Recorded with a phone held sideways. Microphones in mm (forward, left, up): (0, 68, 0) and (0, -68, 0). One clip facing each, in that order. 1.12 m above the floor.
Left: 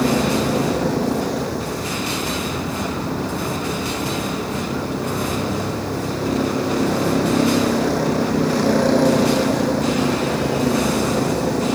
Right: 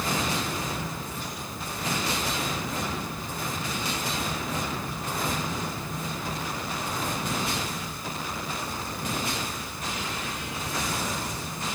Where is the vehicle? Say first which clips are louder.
Left 12 dB; 75° left (ahead or behind).